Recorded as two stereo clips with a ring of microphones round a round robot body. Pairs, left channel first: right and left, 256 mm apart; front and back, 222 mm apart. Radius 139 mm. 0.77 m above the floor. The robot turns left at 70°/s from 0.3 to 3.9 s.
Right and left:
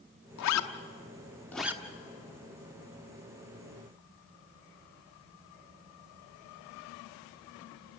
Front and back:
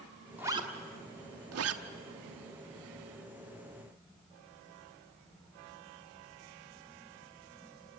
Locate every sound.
0.4 s a zipper: 95° right, 1.1 m; by 1.8 s 165° left, 1.1 m